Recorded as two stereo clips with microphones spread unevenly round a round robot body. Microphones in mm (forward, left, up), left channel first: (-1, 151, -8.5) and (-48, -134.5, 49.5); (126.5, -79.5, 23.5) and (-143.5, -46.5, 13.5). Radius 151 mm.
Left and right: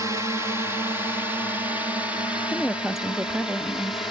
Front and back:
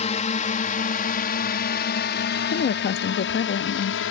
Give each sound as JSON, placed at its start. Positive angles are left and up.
{"t": 0.0, "sound": "a drone", "azimuth_deg": -5}
{"t": 2.5, "sound": "a woman speaking", "azimuth_deg": 5}